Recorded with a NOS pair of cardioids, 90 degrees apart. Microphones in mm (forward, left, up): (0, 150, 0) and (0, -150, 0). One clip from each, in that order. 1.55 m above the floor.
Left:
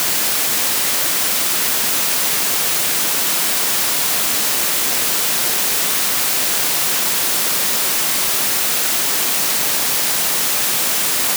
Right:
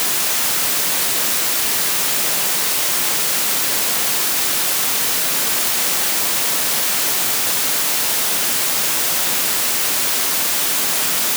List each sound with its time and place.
Only background noise.